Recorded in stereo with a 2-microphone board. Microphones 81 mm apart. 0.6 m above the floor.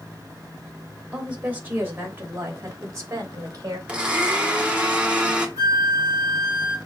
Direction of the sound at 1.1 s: 15° right (ahead or behind).